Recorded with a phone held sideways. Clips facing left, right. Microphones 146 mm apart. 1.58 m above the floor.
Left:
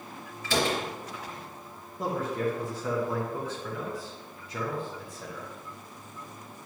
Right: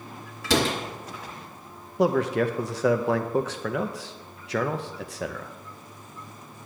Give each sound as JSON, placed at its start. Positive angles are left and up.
{"t": 0.4, "sound": "a door slam", "side_deg": -75, "distance_m": 2.0}
{"t": 2.0, "sound": "a man speaking", "side_deg": -80, "distance_m": 0.7}